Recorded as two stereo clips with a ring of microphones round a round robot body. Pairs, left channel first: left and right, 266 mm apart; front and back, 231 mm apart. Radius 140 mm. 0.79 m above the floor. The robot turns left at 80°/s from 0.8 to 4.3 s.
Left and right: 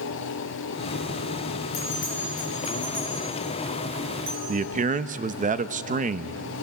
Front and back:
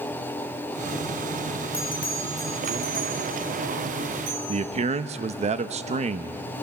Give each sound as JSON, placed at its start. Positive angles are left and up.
{"t": 1.7, "sound": "a bell", "azimuth_deg": 70, "distance_m": 7.5}
{"t": 4.5, "sound": "a man speaking", "azimuth_deg": -135, "distance_m": 0.7}